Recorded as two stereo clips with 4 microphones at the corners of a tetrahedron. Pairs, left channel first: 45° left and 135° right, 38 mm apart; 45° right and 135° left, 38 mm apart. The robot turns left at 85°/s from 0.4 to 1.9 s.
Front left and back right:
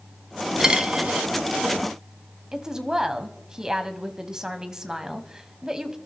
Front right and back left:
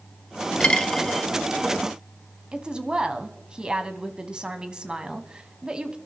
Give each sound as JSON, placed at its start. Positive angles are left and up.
{"t": 0.6, "sound": "a dropped coin", "azimuth_deg": -75, "distance_m": 0.6}
{"t": 2.5, "sound": "a woman speaking", "azimuth_deg": 175, "distance_m": 1.1}